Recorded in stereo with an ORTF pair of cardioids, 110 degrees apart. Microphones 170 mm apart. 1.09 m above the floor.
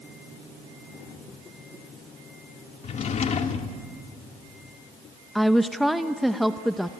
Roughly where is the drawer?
Ahead left.